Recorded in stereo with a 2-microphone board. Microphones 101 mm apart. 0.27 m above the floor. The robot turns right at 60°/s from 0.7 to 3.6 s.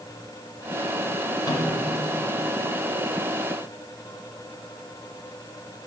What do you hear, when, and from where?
1.4 s a microwave: 40° left (ahead or behind), 1.7 m; by 1.7 s 30° left (ahead or behind), 1.7 m